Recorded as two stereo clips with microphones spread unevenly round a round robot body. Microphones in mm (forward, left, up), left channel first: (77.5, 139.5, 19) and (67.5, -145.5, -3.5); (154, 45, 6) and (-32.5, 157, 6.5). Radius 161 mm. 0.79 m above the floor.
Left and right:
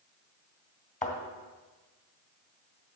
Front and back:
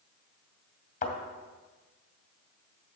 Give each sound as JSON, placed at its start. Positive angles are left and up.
{"t": 1.0, "sound": "a thud", "azimuth_deg": 25, "distance_m": 2.5}